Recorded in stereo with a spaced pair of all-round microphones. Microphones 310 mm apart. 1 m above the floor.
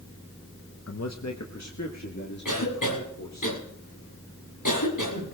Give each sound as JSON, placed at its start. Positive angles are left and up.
{"t": 0.9, "sound": "a man speaking", "side_deg": 50, "distance_m": 0.6}
{"t": 2.5, "sound": "a cough", "side_deg": 85, "distance_m": 7.5}